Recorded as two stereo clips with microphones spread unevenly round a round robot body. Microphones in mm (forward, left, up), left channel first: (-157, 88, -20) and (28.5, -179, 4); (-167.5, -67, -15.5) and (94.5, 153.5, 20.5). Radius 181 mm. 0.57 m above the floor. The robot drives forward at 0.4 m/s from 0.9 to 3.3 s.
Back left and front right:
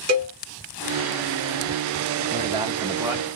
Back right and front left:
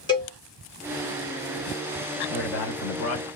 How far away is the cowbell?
About 1.4 m.